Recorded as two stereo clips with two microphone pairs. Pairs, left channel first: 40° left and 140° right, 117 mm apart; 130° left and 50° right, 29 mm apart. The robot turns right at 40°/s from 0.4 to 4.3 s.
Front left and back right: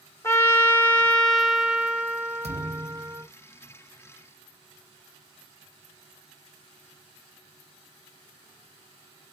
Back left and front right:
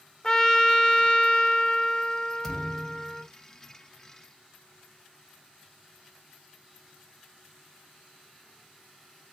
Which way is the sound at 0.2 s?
80° left.